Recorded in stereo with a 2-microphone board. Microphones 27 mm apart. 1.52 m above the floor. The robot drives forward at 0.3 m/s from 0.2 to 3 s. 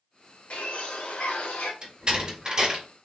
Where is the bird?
60° left (ahead or behind), 1.3 m; by 1.7 s 75° left (ahead or behind), 1.2 m.